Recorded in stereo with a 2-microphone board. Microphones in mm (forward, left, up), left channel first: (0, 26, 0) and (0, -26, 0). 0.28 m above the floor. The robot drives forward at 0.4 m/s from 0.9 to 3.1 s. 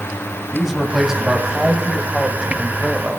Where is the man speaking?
10° right (ahead or behind), 1.5 m; by 3.2 s 15° right (ahead or behind), 1.0 m.